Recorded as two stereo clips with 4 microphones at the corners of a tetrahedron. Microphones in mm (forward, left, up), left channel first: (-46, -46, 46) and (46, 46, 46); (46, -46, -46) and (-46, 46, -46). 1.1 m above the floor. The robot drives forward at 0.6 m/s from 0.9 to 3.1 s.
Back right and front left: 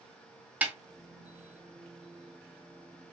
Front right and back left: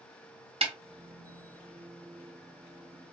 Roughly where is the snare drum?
Behind left.